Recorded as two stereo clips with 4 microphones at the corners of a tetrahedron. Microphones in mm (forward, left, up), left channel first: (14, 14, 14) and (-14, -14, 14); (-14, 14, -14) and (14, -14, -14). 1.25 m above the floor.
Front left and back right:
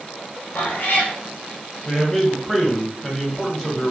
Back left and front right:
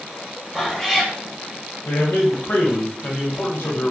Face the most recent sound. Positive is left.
turn(degrees=130)